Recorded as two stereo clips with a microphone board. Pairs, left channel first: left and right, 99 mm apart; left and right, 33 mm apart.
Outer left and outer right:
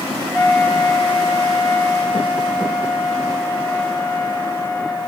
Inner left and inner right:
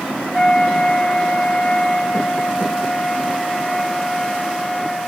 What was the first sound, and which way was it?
A flute, 5° left (ahead or behind).